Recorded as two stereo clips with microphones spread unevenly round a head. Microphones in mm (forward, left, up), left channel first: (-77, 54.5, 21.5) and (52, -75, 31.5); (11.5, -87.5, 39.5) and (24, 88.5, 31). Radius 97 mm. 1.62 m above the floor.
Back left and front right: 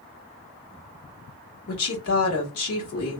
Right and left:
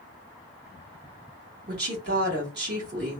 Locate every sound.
1.7 s a woman speaking: 120° left, 1.3 m